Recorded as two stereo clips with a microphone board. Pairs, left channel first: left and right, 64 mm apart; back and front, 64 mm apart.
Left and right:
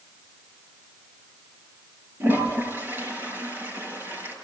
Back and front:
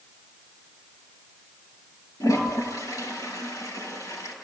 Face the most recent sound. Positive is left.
turn(degrees=-145)